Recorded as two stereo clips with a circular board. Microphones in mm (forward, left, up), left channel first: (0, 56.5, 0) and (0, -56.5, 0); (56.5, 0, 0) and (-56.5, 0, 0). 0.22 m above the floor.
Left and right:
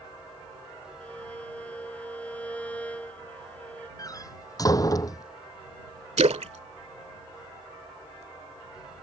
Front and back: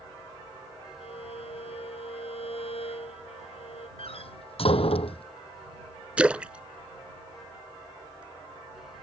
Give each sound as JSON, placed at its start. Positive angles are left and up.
{"t": 1.0, "sound": "a violin", "azimuth_deg": 15}
{"t": 4.0, "sound": "a door slam", "azimuth_deg": 30}
{"t": 6.2, "sound": "a splash", "azimuth_deg": -100}